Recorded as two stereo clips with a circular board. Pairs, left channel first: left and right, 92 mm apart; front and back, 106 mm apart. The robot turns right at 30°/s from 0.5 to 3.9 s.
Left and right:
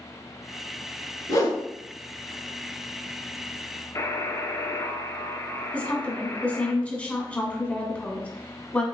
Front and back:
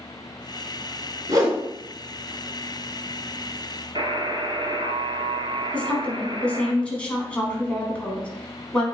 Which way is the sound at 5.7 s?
55° left.